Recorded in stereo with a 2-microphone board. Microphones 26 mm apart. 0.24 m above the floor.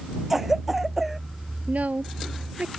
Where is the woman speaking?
65° right (ahead or behind).